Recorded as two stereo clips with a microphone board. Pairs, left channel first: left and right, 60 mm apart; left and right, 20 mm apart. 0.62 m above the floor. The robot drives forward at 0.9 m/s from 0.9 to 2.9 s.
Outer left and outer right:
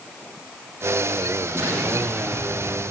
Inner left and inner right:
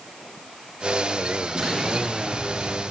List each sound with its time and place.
1.6 s an explosion: 50° right (ahead or behind), 6 m; by 2.8 s 45° right (ahead or behind), 6.5 m